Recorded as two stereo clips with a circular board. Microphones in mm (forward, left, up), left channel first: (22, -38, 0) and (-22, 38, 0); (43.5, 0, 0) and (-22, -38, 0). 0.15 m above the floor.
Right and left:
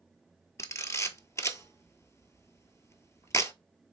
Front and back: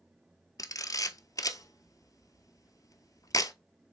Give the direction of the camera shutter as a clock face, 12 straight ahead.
12 o'clock.